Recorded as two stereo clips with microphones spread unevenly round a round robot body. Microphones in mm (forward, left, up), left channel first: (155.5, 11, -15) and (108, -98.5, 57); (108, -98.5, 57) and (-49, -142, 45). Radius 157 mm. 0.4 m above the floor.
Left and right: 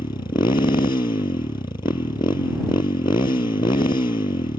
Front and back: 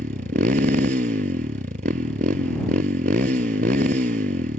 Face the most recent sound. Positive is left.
turn(degrees=135)